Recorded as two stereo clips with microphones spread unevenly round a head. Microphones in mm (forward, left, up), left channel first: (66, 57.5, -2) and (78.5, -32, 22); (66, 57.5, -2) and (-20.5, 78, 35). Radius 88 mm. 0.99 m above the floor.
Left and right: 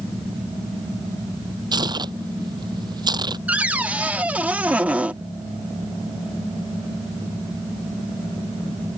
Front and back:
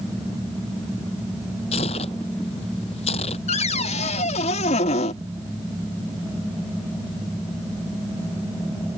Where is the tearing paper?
45° right.